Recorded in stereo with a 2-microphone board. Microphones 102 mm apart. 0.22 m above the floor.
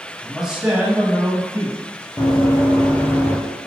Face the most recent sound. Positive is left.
turn(degrees=20)  # may be behind; listen again after turning